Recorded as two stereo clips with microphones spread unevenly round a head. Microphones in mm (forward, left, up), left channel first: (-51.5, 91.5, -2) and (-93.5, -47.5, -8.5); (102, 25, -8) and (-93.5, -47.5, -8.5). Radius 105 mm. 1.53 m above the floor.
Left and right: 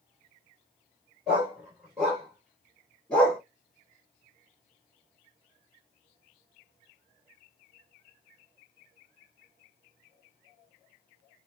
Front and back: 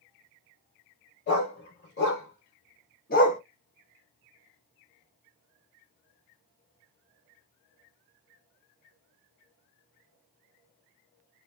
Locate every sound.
1.3 s a dog barking: 15° right, 3.5 m; by 3.4 s straight ahead, 1.1 m